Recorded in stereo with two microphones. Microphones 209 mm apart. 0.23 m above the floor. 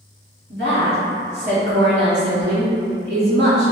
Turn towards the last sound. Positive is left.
turn(degrees=-60)  # may be behind; listen again after turning